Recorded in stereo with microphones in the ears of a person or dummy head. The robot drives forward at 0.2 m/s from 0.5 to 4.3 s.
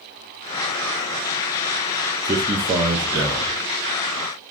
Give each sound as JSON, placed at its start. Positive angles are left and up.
{"t": 2.2, "sound": "a man speaking", "side_deg": -15, "distance_m": 0.6}